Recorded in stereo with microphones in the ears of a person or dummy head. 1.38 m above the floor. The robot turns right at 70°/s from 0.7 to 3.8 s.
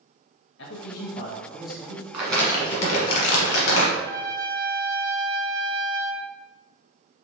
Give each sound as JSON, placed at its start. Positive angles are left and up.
{"t": 0.6, "sound": "a man speaking", "azimuth_deg": 115, "distance_m": 0.9}
{"t": 2.1, "sound": "crumpling", "azimuth_deg": -5, "distance_m": 1.6}
{"t": 3.9, "sound": "a trumpet", "side_deg": -70, "distance_m": 1.1}